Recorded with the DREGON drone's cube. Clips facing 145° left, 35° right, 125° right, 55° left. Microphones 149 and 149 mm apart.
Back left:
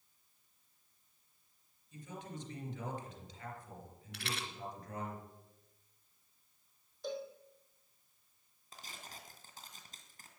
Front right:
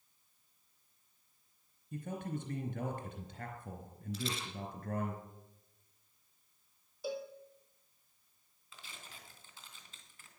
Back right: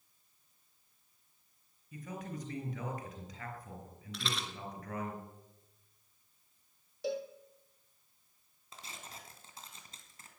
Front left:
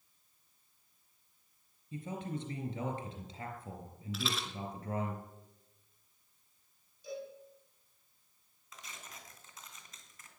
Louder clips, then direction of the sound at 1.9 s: Front right 7 dB, front left 3 dB; 5° right.